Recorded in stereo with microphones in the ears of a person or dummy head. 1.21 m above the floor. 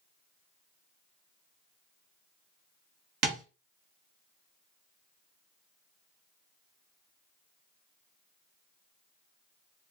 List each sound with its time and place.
3.2 s tapping: 55° right (ahead or behind), 0.8 m